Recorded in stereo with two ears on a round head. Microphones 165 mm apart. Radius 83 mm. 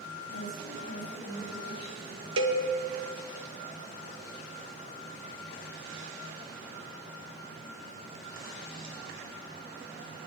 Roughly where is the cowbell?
Right.